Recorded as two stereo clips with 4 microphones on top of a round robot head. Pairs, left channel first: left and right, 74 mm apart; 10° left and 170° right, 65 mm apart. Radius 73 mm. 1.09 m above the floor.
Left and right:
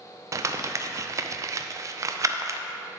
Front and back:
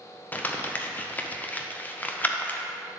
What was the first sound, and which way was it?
Crumpling, 55° right.